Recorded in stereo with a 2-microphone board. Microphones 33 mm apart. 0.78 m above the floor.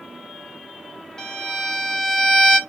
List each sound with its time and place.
1.2 s a violin: 20° left (ahead or behind), 0.6 m